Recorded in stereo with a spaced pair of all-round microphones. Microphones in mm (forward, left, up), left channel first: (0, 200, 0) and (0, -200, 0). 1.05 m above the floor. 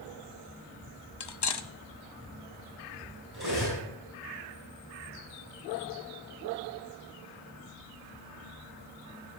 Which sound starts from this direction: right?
Cutlery clinking, at 3.3 s.